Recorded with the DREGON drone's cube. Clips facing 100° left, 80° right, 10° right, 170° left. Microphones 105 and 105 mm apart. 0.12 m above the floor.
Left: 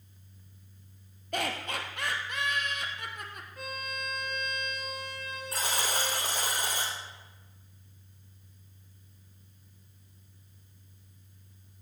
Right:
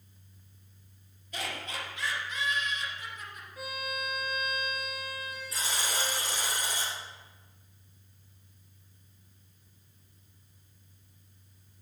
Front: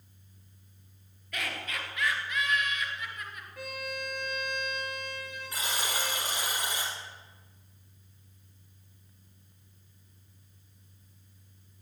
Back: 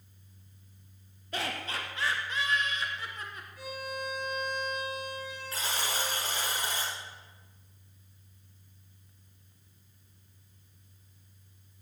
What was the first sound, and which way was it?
Laughter, 115° left.